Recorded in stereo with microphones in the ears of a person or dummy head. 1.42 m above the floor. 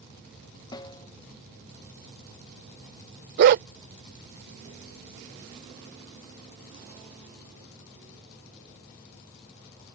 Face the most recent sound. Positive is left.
turn(degrees=-45)  # may be behind; listen again after turning